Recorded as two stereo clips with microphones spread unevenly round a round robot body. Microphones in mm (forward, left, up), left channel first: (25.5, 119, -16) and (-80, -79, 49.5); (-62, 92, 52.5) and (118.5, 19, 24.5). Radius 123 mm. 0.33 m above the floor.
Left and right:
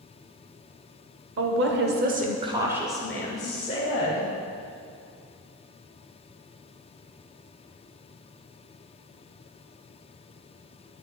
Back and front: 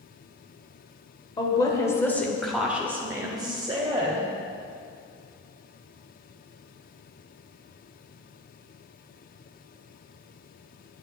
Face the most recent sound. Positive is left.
turn(degrees=30)